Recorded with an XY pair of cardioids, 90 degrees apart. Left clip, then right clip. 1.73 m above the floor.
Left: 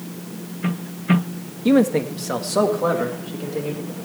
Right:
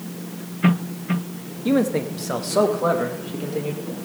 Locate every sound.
1.6 s a man speaking: 30° left, 1.2 m; by 3.8 s 10° right, 3.5 m